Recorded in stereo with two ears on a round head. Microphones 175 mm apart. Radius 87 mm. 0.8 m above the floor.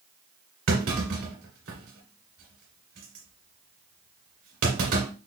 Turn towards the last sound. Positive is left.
turn(degrees=-75)  # may be behind; listen again after turning